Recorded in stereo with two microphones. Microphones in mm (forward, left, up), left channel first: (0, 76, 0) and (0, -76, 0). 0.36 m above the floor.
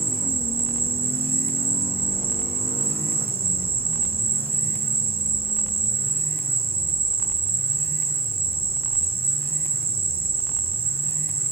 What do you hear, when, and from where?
0.0 s an insect: 40° right (ahead or behind), 1.3 m